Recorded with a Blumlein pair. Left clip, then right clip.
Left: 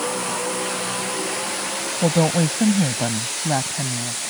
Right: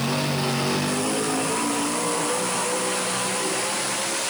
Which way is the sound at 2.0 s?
50° left.